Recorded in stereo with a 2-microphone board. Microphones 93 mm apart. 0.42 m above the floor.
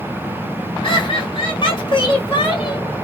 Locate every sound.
0.8 s laughter: 55° left (ahead or behind), 1.5 m